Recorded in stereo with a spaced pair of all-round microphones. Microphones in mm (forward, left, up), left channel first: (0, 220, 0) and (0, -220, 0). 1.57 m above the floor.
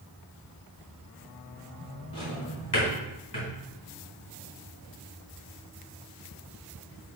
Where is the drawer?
65° left (ahead or behind), 3.5 m.